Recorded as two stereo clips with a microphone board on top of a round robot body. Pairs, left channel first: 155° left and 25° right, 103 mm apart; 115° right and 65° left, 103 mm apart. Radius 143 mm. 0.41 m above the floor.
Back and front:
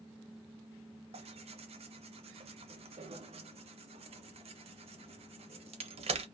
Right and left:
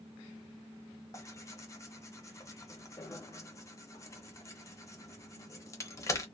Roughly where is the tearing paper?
Ahead right.